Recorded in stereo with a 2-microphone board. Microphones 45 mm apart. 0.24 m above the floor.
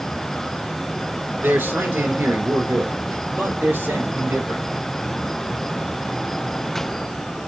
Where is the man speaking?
55° right (ahead or behind), 3 m; by 4.6 s 65° right (ahead or behind), 5 m.